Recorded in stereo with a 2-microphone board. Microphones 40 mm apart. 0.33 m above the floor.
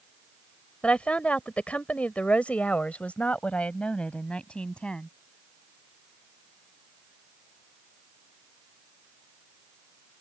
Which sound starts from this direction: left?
A woman speaking, at 0.8 s.